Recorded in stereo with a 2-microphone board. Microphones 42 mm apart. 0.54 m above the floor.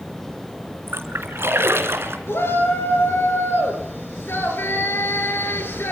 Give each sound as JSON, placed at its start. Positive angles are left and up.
{"t": 0.9, "sound": "a splash", "side_deg": -80, "distance_m": 3.0}
{"t": 2.3, "sound": "a shout", "side_deg": 65, "distance_m": 7.5}